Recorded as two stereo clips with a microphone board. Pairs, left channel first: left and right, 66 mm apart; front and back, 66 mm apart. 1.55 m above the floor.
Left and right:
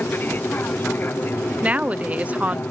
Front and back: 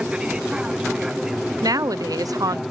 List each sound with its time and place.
0.0 s an aircraft: 115° left; by 2.7 s 90° left
1.6 s a woman speaking: 155° right